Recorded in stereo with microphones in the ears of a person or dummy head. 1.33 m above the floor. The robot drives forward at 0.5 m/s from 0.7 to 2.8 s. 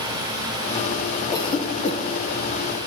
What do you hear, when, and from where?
1.3 s a cough: 25° left (ahead or behind), 1.1 m; by 2.9 s 45° left (ahead or behind), 0.7 m